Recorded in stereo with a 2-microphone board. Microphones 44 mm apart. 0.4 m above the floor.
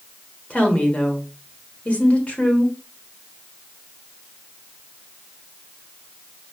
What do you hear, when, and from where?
0.5 s a woman speaking: 30° left (ahead or behind), 1.3 m